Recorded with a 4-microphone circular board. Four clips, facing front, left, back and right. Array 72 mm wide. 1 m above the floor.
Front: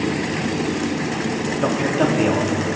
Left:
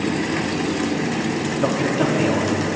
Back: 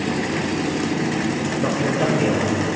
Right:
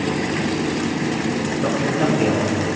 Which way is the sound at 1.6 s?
25° left.